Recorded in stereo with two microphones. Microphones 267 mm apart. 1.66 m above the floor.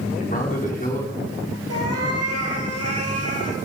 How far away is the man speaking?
About 5.5 m.